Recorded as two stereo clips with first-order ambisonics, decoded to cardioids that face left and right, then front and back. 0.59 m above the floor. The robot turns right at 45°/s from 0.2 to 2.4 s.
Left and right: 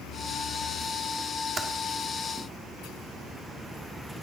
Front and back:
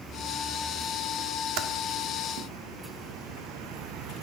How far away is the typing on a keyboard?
About 1.4 m.